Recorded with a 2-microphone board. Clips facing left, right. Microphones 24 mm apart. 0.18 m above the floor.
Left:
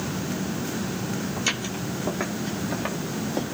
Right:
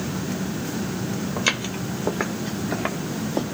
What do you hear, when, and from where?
1.4 s footsteps: 25° right (ahead or behind), 2.5 m; by 3.4 s 10° right (ahead or behind), 1.0 m